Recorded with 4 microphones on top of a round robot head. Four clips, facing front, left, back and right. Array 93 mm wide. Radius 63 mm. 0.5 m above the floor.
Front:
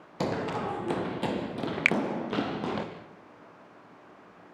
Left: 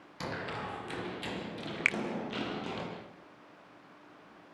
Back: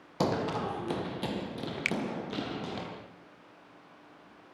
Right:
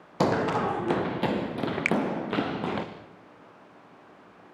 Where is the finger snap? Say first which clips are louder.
Right 6 dB, front 7 dB; 5° right, 1.2 m.